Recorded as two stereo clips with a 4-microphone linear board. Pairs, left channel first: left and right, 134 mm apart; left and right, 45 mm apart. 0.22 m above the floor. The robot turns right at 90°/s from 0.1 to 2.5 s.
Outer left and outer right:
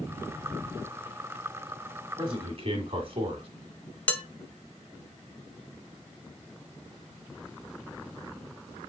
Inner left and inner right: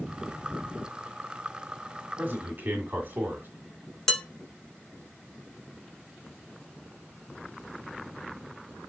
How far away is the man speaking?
About 1.8 m.